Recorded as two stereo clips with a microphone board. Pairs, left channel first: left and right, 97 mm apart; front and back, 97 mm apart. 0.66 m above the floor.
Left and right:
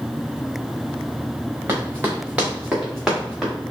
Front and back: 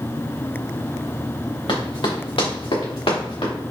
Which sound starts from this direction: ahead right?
Running footsteps, at 1.7 s.